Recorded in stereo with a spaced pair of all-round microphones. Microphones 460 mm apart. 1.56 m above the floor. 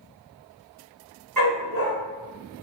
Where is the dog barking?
45° right (ahead or behind), 1.6 m.